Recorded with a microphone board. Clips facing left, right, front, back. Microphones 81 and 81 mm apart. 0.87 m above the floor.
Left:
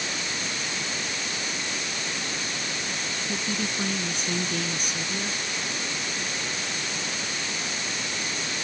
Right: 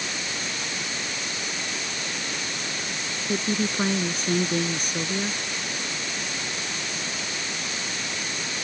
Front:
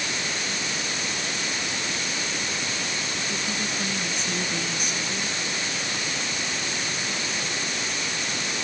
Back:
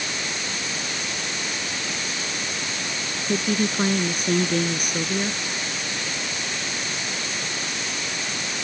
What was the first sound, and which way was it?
A woman speaking, 140° right.